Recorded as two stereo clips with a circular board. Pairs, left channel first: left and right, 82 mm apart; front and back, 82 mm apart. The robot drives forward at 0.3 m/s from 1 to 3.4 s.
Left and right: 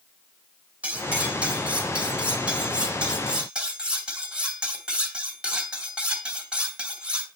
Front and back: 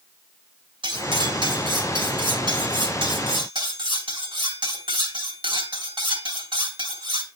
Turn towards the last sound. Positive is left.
turn(degrees=-170)